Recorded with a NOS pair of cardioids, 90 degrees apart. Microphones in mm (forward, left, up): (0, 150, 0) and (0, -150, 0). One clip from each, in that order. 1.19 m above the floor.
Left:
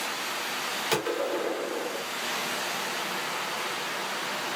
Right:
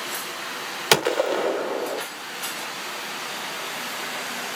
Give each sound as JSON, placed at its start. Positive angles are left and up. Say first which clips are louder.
{"t": 0.9, "sound": "a gunshot", "louder": "right 10 dB", "azimuth_deg": -60, "distance_m": 0.6}